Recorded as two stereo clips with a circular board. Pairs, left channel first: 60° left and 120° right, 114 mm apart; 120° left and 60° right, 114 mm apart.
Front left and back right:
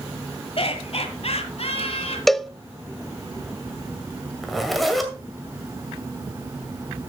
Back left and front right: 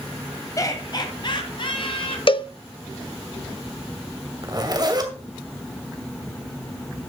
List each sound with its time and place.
0.6 s laughter: 65° left, 1.4 m; by 2.2 s 85° left, 2.5 m
2.3 s a cowbell: 150° left, 0.5 m
4.4 s a zipper: 30° right, 2 m